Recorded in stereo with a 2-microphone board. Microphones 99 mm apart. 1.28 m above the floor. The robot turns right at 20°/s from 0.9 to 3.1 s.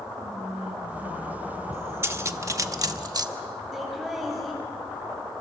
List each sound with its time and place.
0.1 s whispering: 15° right, 5 m; by 3.0 s 30° left, 5 m
2.0 s cutlery clinking: 25° right (ahead or behind), 1.1 m; by 3.3 s 45° right (ahead or behind), 1.1 m
3.7 s laughter: centre (ahead or behind), 8.5 m